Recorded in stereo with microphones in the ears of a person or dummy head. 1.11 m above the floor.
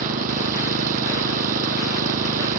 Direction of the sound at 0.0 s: 50° right (ahead or behind).